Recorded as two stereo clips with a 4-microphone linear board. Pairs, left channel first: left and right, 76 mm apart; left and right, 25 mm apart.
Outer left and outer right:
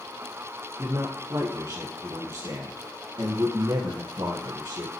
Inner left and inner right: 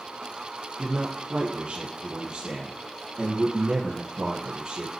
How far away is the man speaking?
About 2.5 m.